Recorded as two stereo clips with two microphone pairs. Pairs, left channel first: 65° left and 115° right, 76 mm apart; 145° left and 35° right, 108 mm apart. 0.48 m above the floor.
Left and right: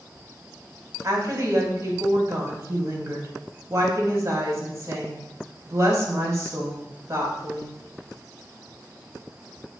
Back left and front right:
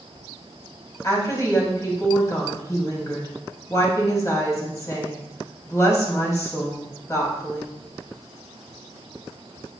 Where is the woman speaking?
160° right, 2.5 m.